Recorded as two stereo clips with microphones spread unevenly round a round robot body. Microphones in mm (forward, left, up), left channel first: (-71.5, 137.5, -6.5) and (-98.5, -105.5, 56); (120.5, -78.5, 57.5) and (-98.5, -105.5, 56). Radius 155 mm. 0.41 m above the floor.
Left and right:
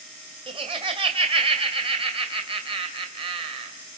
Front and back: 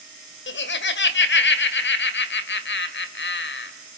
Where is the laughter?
20° right, 2 m.